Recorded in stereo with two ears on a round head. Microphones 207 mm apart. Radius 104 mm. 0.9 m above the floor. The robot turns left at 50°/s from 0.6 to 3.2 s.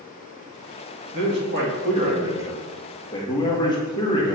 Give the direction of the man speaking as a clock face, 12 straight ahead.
3 o'clock.